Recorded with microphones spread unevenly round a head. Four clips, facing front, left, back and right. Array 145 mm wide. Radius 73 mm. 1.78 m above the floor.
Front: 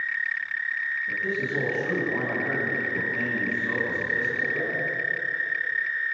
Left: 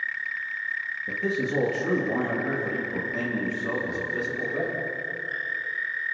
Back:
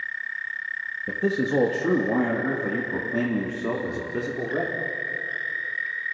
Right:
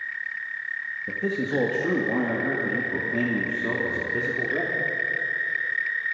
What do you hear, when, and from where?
1.1 s a man speaking: 170° right, 2.5 m; by 4.8 s 155° right, 4.5 m